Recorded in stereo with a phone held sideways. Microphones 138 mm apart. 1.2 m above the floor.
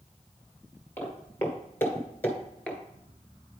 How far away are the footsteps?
About 1.5 m.